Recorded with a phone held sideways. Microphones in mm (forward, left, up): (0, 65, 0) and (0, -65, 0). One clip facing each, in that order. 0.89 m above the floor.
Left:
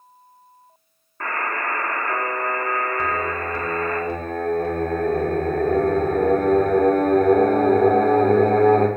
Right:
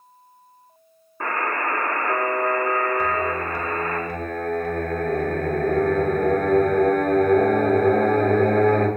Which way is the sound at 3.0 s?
25° left (ahead or behind).